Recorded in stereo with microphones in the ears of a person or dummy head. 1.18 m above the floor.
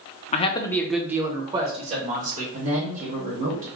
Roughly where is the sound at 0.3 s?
Left.